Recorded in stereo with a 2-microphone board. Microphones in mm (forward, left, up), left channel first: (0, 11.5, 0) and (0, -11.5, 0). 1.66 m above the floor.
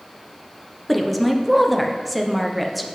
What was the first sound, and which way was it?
A woman speaking, centre (ahead or behind).